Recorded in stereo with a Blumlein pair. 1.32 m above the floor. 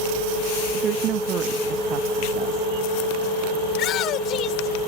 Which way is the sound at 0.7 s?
35° right.